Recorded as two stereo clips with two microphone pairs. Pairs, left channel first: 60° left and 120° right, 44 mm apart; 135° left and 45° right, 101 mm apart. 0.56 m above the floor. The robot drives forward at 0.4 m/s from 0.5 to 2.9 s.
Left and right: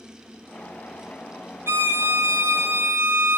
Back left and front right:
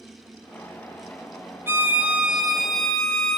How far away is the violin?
About 0.7 m.